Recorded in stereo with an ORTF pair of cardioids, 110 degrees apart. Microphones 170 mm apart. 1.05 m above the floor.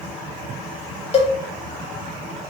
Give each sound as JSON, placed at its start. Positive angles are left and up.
{"t": 1.1, "sound": "a cowbell", "azimuth_deg": 35, "distance_m": 0.9}